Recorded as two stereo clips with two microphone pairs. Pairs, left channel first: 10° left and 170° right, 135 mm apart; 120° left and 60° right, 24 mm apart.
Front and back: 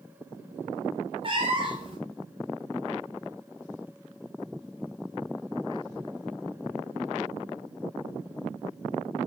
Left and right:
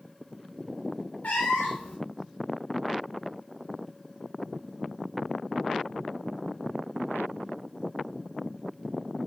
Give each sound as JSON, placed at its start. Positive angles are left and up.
{"t": 1.2, "sound": "a cat meowing", "azimuth_deg": 145, "distance_m": 1.6}